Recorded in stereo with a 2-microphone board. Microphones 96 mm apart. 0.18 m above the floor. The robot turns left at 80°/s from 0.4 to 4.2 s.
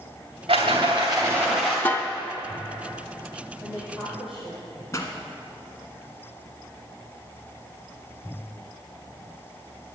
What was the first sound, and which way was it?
A rattle, 90° right.